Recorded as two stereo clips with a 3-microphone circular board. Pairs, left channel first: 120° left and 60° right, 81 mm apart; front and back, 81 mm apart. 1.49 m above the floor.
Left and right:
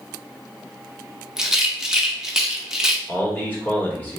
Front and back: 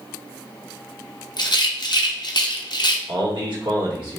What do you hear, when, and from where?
1.4 s a rattle: 25° left, 0.6 m
3.1 s a man speaking: 175° right, 1.6 m